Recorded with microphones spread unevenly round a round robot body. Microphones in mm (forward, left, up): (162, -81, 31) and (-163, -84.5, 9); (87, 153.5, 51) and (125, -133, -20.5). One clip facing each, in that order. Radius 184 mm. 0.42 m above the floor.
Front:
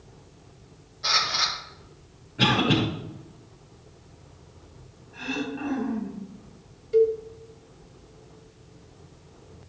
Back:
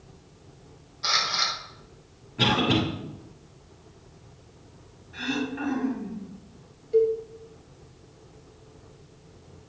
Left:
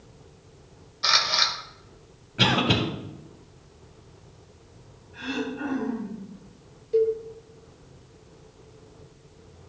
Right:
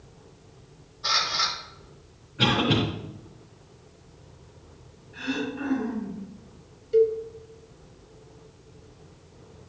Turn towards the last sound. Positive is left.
turn(degrees=-45)